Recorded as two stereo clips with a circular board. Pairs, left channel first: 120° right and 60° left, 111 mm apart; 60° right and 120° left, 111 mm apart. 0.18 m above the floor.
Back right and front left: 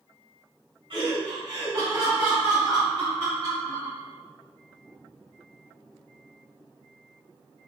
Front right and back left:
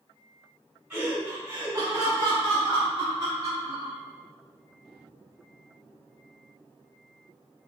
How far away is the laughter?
About 1.5 m.